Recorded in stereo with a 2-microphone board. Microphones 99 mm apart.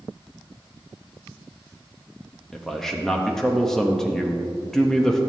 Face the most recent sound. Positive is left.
turn(degrees=5)  # may be behind; listen again after turning